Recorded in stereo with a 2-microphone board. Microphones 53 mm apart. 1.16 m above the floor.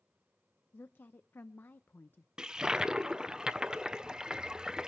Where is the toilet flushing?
15° right (ahead or behind), 0.6 m.